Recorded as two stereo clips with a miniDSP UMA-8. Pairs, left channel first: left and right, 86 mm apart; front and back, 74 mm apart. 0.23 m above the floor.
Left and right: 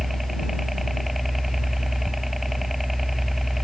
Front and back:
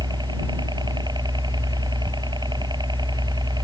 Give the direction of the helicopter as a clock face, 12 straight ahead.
6 o'clock.